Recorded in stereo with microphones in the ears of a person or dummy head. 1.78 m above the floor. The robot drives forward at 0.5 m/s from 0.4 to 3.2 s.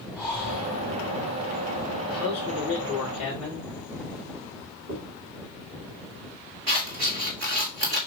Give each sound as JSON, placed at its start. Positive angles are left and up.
{"t": 0.1, "sound": "breathing", "side_deg": -5, "distance_m": 1.9}
{"t": 2.1, "sound": "a man speaking", "side_deg": -5, "distance_m": 2.0}
{"t": 4.9, "sound": "a dropped coin", "side_deg": -60, "distance_m": 2.0}
{"t": 6.7, "sound": "scissors", "side_deg": -60, "distance_m": 1.7}